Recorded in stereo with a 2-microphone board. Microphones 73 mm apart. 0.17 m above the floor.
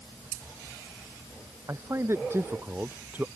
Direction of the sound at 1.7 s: 40° right (ahead or behind).